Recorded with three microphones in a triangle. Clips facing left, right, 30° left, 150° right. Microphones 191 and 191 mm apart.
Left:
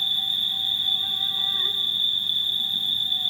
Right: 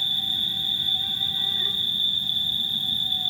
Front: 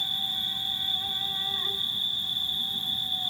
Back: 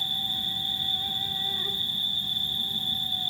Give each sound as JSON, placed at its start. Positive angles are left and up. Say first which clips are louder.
{"t": 0.0, "sound": "an insect", "louder": "right 3 dB, back 3 dB", "azimuth_deg": -105, "distance_m": 2.5}